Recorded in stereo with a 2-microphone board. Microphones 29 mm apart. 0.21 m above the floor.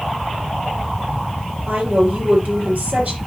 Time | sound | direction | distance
1.7 | a woman speaking | 70° right (ahead or behind) | 5 m